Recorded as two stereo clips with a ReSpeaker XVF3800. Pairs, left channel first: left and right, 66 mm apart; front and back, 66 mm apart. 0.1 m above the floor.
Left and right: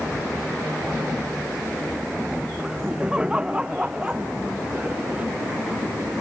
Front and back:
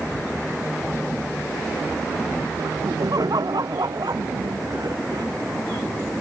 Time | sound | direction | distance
2.6 | laughter | 165° right | ?